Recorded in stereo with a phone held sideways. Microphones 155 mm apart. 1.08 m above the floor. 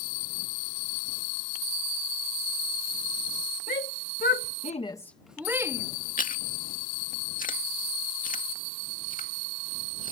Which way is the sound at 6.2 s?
60° left (ahead or behind).